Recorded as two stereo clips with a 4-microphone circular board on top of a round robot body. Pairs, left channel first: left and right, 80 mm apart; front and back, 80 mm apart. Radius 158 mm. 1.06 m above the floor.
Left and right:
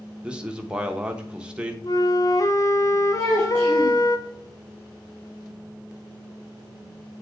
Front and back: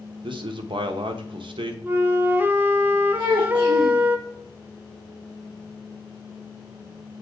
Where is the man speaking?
170° right, 0.9 m.